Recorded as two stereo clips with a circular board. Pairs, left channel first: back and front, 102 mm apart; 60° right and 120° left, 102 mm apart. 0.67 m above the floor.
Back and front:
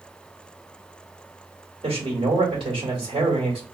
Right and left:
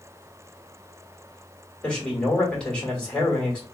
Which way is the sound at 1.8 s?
20° left.